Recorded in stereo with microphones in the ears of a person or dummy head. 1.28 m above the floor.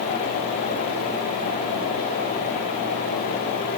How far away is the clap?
I don't hear a clap.